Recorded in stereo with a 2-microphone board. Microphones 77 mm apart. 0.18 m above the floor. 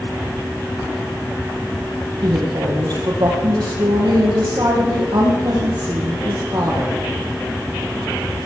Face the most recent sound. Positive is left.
turn(degrees=-60)  # may be behind; listen again after turning